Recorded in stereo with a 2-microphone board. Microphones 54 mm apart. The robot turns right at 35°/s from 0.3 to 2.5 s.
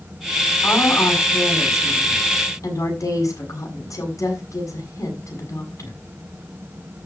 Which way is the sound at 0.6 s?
40° left.